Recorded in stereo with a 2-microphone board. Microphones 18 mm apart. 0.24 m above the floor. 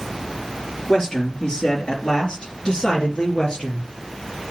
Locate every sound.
0.9 s a man speaking: 60° left (ahead or behind), 3.5 m; by 3.9 s 70° left (ahead or behind), 4 m